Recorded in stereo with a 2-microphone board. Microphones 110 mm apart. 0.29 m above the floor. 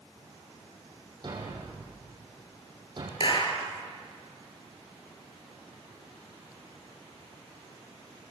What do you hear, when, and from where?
1.2 s a thud: 45° right (ahead or behind), 6 m
3.2 s a clap: 45° left (ahead or behind), 3.5 m